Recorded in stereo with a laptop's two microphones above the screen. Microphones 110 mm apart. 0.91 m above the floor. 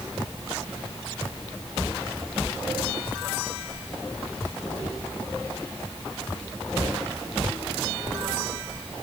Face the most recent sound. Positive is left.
No sound to turn to.